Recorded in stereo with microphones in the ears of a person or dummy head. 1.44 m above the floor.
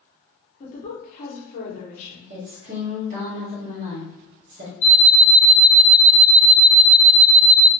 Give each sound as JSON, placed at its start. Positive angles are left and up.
{"t": 0.6, "sound": "a woman speaking", "side_deg": 45, "distance_m": 1.0}
{"t": 2.3, "sound": "a woman speaking", "side_deg": -30, "distance_m": 0.8}
{"t": 4.8, "sound": "an alarm clock", "side_deg": 40, "distance_m": 1.6}